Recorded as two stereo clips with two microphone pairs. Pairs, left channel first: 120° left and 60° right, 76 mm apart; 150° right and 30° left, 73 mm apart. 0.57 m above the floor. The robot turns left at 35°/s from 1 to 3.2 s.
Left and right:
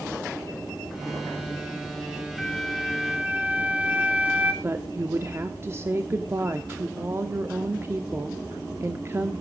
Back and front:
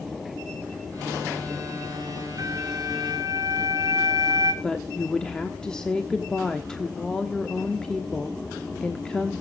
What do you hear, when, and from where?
2.4 s a flute: 35° left, 2.5 m; by 4.5 s 5° left, 2.5 m
4.6 s a woman speaking: 75° right, 1.2 m